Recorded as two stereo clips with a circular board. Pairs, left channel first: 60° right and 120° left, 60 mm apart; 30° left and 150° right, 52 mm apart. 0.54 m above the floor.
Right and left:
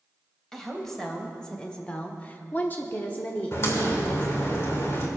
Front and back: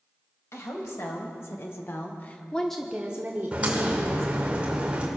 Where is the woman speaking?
25° left, 3 m; by 4.5 s 125° right, 2.5 m.